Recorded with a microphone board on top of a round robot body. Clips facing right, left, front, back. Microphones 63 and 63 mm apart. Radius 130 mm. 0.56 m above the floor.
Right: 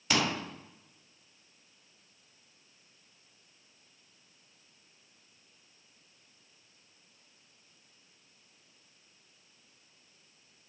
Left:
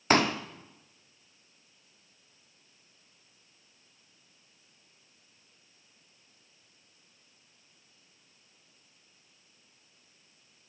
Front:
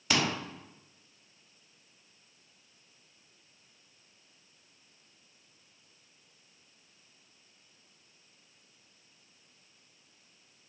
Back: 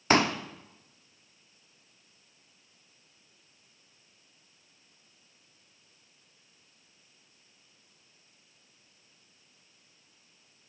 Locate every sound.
0.1 s a pop: 135° left, 1.4 m